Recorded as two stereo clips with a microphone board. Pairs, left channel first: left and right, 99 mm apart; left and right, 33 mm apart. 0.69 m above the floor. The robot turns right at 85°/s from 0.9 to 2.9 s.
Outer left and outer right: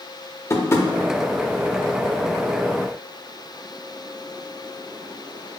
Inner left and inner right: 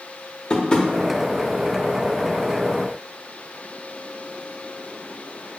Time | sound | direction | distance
0.5 | tapping | 30° left (ahead or behind) | 0.5 m